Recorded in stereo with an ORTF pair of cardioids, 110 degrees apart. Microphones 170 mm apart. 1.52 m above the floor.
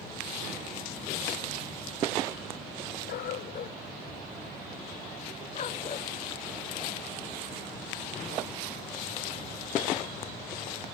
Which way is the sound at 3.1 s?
65° left.